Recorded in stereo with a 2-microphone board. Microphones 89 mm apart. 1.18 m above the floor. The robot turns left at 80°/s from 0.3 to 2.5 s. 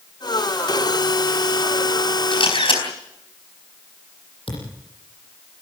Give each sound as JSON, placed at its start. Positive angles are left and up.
{"t": 2.3, "sound": "a camera shutter", "side_deg": 80, "distance_m": 4.0}
{"t": 4.5, "sound": "a thud", "side_deg": 80, "distance_m": 8.5}